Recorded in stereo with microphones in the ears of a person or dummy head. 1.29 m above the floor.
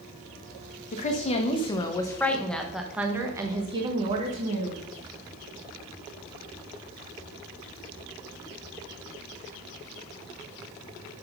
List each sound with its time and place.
0.9 s a woman speaking: 40° left (ahead or behind), 1.4 m; by 4.8 s 45° right (ahead or behind), 1.6 m